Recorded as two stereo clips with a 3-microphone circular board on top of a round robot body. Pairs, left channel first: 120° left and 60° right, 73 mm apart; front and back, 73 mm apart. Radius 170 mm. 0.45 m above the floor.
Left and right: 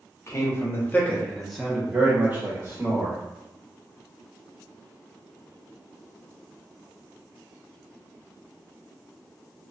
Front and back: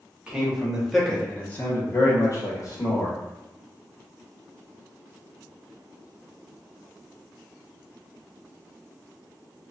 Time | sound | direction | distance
0.3 | a man speaking | 110° left | 1.3 m